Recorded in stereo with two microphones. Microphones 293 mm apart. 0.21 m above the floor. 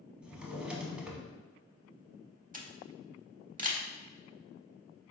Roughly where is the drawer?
Centre.